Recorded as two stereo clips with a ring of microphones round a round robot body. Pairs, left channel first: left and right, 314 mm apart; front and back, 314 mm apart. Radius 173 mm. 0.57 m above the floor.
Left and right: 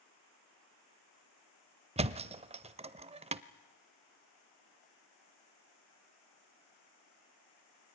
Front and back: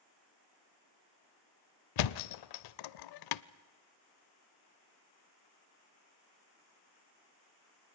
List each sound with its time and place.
2.0 s a thud: 20° right, 0.5 m